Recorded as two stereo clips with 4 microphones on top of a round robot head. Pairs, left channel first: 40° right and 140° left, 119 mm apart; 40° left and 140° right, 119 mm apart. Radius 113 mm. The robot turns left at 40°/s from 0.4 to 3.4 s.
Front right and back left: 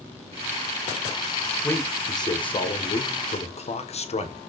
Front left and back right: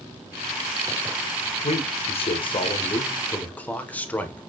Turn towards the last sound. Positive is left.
turn(degrees=-40)